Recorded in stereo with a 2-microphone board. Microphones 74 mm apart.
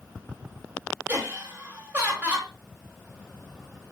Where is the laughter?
30° right (ahead or behind), 1.7 m.